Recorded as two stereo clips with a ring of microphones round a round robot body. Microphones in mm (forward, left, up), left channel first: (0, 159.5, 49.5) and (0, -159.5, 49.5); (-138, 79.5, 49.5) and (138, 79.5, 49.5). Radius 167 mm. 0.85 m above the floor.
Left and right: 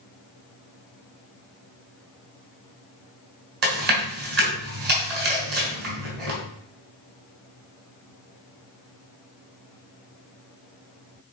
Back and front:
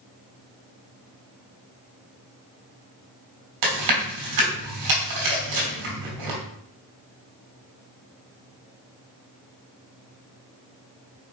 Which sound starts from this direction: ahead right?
Chewing, at 3.6 s.